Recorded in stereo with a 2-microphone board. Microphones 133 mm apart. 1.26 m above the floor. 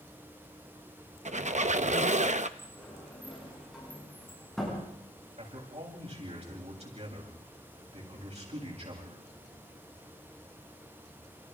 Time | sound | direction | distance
1.2 | a squeak | 60° right (ahead or behind) | 0.8 m
2.6 | a sliding door | centre (ahead or behind) | 8.5 m
5.4 | a man speaking | 55° right (ahead or behind) | 8.5 m